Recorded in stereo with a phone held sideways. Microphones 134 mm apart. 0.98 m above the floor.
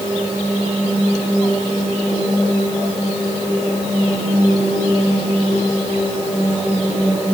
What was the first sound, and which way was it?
Only background noise.